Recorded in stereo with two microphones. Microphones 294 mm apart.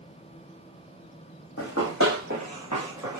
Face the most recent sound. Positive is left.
turn(degrees=70)  # may be behind; listen again after turning